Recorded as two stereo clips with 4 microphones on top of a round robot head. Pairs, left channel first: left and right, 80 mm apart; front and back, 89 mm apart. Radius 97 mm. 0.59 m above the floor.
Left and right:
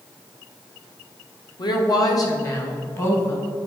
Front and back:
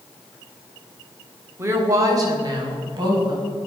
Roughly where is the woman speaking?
Behind left.